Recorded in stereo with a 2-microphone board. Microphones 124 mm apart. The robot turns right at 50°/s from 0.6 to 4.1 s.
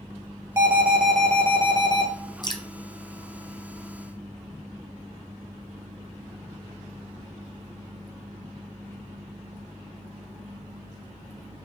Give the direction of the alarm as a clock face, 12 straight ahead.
1 o'clock.